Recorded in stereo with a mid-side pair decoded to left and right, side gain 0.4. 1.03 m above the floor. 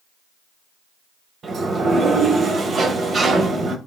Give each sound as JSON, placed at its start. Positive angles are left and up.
{"t": 1.4, "sound": "a sliding door", "azimuth_deg": -50, "distance_m": 1.9}